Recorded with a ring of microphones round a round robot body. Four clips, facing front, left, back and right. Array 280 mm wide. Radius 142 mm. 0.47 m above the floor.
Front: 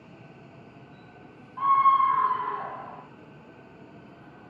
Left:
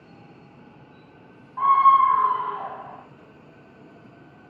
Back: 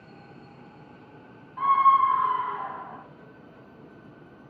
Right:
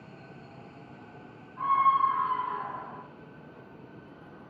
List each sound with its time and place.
1.6 s a scream: 105° left, 1.8 m; by 3.0 s 50° left, 3 m